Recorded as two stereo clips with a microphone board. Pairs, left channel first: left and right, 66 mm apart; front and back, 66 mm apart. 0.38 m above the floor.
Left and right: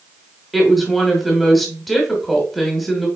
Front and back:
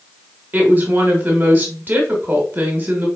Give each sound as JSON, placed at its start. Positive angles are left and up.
{"t": 0.5, "sound": "a woman speaking", "azimuth_deg": 180, "distance_m": 1.2}